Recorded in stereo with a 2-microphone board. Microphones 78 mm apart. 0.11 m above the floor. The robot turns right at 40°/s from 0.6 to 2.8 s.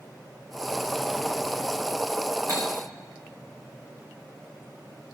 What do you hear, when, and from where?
2.5 s cutlery clinking: 45° right (ahead or behind), 6 m; by 2.6 s 40° right (ahead or behind), 6 m